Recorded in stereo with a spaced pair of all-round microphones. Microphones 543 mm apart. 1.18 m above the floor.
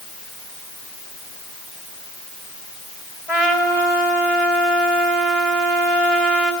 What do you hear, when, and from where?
3.3 s a trumpet: 85° left, 5 m